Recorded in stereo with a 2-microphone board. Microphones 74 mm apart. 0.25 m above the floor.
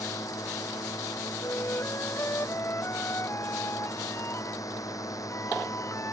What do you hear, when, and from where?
0.0 s a drone: 50° left (ahead or behind)
1.4 s a flute: 35° left (ahead or behind)